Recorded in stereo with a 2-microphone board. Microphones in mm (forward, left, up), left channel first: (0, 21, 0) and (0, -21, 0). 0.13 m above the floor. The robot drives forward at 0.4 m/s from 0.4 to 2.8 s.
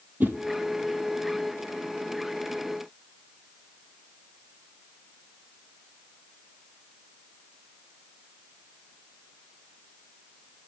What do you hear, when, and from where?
0.2 s a whoosh: 45° right (ahead or behind), 0.5 m